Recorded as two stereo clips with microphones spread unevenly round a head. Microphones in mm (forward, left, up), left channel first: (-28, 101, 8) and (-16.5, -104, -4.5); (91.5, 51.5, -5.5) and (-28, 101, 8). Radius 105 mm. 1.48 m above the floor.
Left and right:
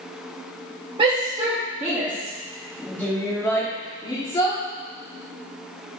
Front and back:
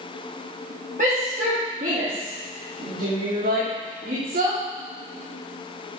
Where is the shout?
150° right, 2 m; by 4.6 s 160° left, 3.5 m.